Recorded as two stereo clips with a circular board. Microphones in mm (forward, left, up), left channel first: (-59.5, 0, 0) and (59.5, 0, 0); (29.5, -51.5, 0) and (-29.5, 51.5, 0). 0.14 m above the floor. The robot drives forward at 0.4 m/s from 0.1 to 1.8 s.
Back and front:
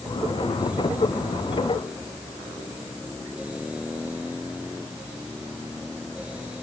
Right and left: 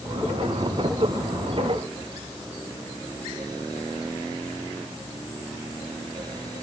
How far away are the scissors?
No scissors in this recording.